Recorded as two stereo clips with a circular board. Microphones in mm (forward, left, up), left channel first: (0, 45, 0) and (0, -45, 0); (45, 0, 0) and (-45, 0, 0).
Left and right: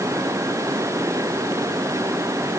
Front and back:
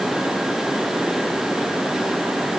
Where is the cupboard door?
I don't hear a cupboard door.